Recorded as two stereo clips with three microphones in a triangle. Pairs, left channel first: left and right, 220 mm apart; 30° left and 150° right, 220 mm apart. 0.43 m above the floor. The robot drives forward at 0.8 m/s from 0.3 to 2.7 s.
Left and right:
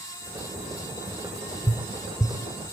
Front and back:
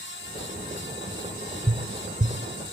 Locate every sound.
1.7 s tapping: 160° left, 0.9 m; by 2.4 s 170° left, 1.4 m